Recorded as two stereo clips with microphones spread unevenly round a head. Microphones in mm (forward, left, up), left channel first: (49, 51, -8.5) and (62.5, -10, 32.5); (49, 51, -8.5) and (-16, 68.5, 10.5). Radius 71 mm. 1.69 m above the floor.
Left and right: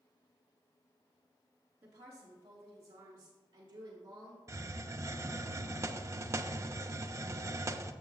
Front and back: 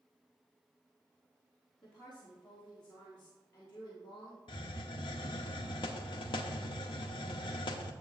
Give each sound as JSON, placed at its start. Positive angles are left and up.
{"t": 1.8, "sound": "a woman speaking", "azimuth_deg": -100, "distance_m": 3.5}
{"t": 4.5, "sound": "a hiss", "azimuth_deg": -45, "distance_m": 0.6}